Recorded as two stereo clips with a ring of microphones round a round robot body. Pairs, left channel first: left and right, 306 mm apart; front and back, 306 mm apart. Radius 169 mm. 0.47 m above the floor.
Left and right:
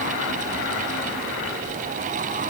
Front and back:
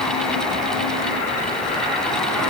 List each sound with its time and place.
Only background noise.